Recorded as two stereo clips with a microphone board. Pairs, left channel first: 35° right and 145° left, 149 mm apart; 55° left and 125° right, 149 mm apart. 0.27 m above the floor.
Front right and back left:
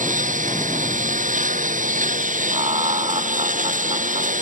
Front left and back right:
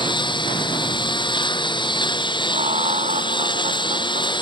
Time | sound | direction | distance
0.0 | a lawn mower | 115° left | ?
2.5 | laughter | 165° right | ?